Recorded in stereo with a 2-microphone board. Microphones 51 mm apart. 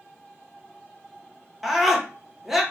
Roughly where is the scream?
Centre.